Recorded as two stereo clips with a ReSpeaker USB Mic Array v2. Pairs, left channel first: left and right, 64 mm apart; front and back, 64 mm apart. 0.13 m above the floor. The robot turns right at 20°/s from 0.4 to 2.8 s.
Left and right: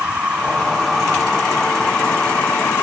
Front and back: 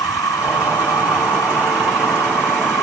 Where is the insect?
20° right; by 2.8 s 30° left.